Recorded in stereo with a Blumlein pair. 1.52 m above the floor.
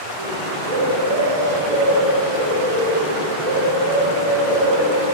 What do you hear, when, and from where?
0.2 s a bird: 60° right, 4 m